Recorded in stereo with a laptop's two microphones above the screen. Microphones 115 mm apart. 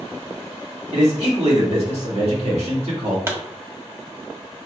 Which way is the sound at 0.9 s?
65° right (ahead or behind).